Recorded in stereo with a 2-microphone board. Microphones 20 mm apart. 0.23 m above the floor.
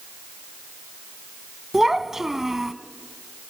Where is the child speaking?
20° right (ahead or behind), 1.0 m.